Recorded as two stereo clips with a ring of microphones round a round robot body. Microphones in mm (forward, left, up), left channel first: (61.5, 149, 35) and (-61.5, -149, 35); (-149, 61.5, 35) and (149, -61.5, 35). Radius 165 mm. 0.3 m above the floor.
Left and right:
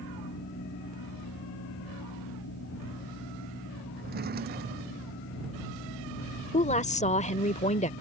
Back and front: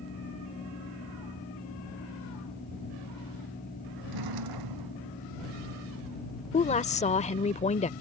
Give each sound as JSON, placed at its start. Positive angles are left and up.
{"t": 4.0, "sound": "a drawer", "azimuth_deg": -50}
{"t": 6.5, "sound": "a woman speaking", "azimuth_deg": 110}